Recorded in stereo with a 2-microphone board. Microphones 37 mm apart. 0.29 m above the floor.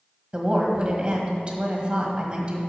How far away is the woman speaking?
About 1.6 m.